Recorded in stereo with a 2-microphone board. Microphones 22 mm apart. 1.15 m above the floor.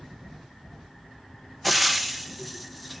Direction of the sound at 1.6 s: Centre (ahead or behind).